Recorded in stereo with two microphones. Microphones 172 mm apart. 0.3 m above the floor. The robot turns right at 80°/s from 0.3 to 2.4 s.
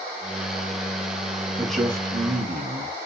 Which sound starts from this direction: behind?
A man speaking, at 1.6 s.